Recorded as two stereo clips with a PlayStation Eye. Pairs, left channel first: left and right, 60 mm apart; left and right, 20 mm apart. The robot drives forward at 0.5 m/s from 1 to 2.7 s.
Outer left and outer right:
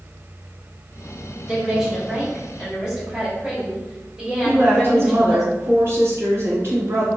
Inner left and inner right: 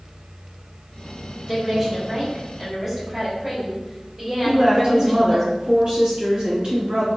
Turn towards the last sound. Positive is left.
turn(degrees=-40)  # may be behind; listen again after turning